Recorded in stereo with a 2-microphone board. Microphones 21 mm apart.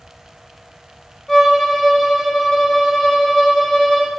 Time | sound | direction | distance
1.3 | a violin | 5° right (ahead or behind) | 2 m